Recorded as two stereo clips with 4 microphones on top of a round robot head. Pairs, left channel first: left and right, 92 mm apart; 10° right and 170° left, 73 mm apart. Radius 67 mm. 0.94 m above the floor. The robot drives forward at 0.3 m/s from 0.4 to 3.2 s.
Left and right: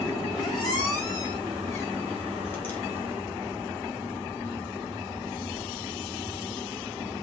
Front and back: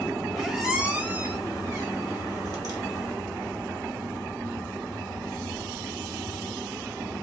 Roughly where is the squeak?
Left.